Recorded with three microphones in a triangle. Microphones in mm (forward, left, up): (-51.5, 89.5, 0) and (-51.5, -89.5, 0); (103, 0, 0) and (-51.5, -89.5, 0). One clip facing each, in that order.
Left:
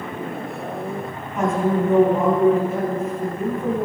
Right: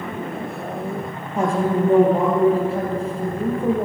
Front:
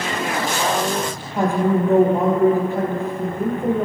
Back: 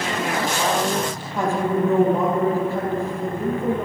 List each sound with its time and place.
1.4 s a woman speaking: 40° right, 3 m